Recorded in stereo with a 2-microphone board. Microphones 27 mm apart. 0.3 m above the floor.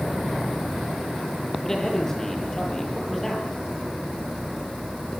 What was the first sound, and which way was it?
A man speaking, 15° left (ahead or behind).